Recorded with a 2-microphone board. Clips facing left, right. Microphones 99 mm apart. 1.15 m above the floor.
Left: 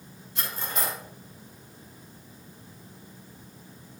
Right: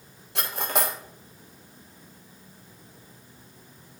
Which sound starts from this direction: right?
Cutlery clinking, at 0.3 s.